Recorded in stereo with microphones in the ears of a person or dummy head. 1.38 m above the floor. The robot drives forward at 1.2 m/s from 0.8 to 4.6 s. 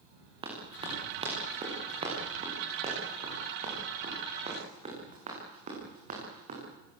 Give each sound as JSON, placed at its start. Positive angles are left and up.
{"t": 0.4, "sound": "running footsteps", "side_deg": -30, "distance_m": 10.0}